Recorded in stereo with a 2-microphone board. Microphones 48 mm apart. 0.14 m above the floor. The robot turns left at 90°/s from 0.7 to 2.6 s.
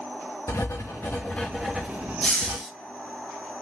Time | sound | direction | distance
0.5 | writing | 85° left | 2.5 m
2.2 | a hiss | 25° left | 6 m